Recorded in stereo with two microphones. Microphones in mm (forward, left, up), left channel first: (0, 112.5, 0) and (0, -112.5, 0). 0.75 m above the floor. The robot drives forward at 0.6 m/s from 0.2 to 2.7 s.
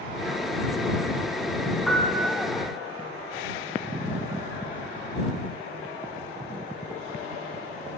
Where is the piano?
Centre (ahead or behind), 2.5 m.